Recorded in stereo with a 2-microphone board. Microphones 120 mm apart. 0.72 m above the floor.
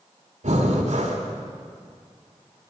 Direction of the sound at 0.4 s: 75° right (ahead or behind).